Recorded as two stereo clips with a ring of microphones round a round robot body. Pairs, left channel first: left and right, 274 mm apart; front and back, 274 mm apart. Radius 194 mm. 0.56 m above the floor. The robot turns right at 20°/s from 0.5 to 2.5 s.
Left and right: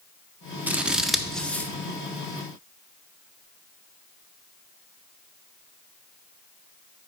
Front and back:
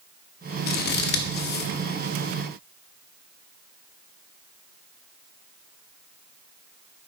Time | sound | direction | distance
0.7 | scissors | 10° right | 0.7 m